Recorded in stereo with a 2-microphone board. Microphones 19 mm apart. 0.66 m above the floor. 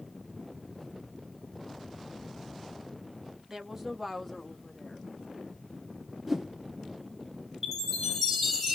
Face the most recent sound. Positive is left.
turn(degrees=-15)  # may be behind; listen again after turning